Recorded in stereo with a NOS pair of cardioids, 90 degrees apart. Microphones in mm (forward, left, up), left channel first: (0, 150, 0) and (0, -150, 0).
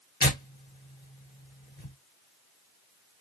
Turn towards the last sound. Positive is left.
turn(degrees=30)